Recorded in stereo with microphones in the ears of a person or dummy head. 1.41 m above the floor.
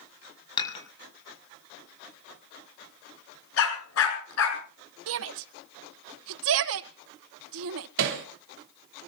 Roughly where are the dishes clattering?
Left.